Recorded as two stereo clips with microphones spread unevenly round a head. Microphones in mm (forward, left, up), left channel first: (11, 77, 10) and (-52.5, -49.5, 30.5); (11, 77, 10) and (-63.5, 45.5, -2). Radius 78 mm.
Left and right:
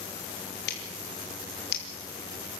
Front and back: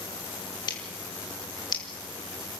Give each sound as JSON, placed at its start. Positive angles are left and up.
{"t": 0.7, "sound": "scissors", "azimuth_deg": 50, "distance_m": 4.0}